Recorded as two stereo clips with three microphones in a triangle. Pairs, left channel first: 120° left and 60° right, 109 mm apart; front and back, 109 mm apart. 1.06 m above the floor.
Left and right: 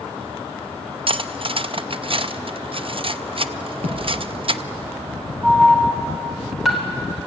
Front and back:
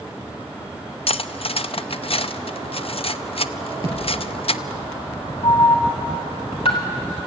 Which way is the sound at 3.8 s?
55° right.